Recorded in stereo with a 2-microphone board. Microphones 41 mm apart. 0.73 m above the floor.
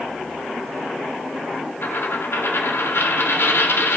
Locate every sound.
1.8 s a dropped coin: 75° left (ahead or behind), 0.7 m